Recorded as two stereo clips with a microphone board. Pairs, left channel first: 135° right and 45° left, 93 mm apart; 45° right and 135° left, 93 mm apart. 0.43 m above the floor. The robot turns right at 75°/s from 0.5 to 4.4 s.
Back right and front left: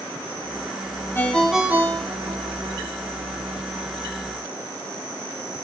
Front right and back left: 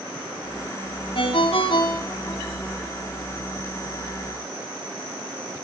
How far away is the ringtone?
About 3 m.